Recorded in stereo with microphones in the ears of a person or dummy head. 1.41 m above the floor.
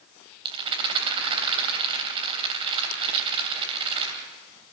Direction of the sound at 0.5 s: 25° right (ahead or behind).